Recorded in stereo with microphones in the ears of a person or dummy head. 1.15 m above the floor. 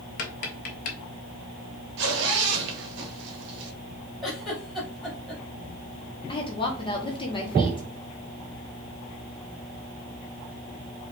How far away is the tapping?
About 0.7 m.